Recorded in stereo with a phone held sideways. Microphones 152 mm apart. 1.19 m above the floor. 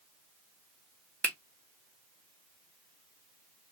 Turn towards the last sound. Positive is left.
turn(degrees=10)  # may be behind; listen again after turning